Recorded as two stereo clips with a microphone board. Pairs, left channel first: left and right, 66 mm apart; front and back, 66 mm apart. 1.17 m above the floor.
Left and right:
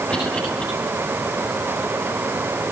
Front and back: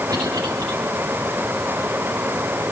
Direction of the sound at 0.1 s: 165° left.